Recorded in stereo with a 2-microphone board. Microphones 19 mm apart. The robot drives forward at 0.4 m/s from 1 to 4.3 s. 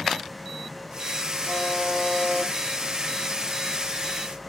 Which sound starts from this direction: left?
A buzzer, at 1.4 s.